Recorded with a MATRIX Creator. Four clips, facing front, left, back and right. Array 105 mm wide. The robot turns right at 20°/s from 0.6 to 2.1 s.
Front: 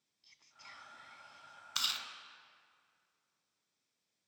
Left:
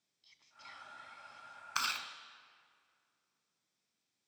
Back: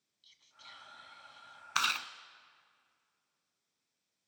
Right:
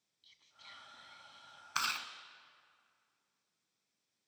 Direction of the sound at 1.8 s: Straight behind.